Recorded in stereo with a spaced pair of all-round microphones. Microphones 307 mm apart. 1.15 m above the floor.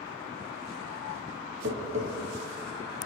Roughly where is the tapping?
Right.